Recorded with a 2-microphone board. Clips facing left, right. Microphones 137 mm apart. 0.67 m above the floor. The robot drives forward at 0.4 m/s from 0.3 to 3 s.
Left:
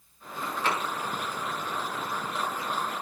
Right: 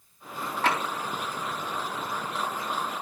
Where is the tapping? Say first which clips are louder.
Right 3 dB; 70° right (ahead or behind), 3.5 m.